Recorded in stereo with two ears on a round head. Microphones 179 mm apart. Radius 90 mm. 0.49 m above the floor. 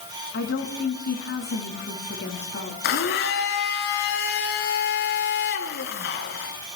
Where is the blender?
50° left (ahead or behind), 3.5 m.